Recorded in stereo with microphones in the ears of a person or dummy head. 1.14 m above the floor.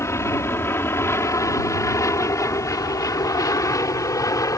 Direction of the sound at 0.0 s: 10° left (ahead or behind).